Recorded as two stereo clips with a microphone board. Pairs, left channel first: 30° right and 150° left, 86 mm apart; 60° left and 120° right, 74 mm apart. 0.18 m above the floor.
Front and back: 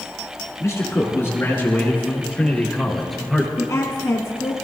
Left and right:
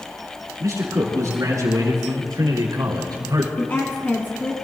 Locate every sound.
0.6 s a man speaking: 85° right, 5.5 m; by 3.5 s 125° right, 3.5 m
3.6 s a woman speaking: 5° left, 1.5 m